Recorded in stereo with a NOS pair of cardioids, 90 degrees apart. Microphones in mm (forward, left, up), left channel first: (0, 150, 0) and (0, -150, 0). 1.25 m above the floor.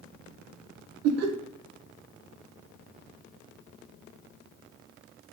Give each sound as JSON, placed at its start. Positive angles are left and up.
{"t": 1.0, "sound": "laughter", "azimuth_deg": -60, "distance_m": 0.6}